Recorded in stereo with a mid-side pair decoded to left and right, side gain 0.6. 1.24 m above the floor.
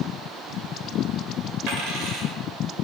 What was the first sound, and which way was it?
A dropped coin, 65° right.